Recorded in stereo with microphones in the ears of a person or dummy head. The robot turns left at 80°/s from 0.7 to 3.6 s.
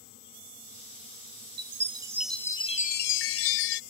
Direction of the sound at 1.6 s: 125° right.